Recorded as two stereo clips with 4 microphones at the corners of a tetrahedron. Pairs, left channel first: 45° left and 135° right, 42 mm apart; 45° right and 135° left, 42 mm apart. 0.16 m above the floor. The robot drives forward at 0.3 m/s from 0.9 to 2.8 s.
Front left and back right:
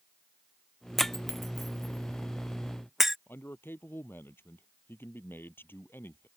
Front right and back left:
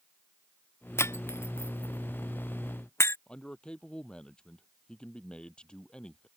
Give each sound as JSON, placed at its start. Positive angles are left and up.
{"t": 1.0, "sound": "breaking glass", "azimuth_deg": -35}
{"t": 3.3, "sound": "a man speaking", "azimuth_deg": 20}